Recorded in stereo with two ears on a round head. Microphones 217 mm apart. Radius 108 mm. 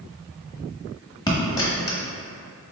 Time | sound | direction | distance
1.3 | a dropped coin | 15° left (ahead or behind) | 1.0 m